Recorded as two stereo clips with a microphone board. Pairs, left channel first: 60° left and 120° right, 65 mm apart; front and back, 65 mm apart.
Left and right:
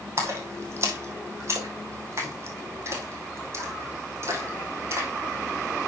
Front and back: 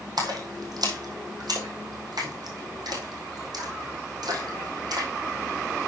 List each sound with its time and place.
0.2 s a splash: 170° right, 2 m